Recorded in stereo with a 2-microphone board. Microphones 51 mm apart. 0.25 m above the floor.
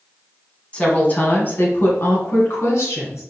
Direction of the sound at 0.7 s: 20° left (ahead or behind).